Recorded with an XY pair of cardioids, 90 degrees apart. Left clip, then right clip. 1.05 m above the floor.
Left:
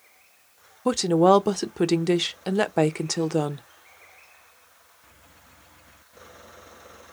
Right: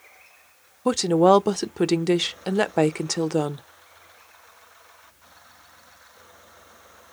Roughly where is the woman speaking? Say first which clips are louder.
Right 1 dB; ahead.